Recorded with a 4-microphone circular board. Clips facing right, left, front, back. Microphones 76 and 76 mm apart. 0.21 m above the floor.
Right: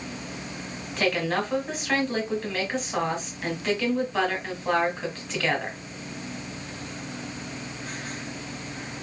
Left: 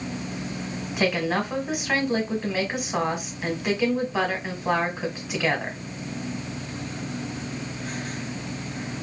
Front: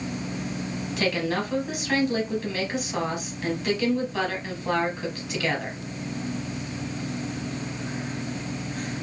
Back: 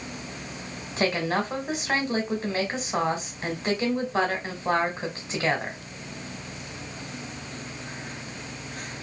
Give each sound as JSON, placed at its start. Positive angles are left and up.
{"t": 1.0, "sound": "a woman speaking", "azimuth_deg": 160, "distance_m": 1.1}